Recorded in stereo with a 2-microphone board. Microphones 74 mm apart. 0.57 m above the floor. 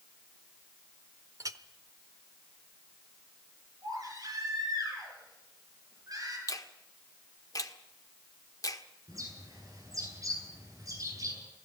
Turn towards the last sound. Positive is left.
turn(degrees=-50)  # may be behind; listen again after turning